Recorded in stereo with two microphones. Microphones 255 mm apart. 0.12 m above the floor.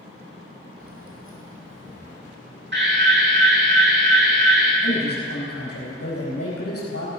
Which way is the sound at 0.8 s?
65° right (ahead or behind).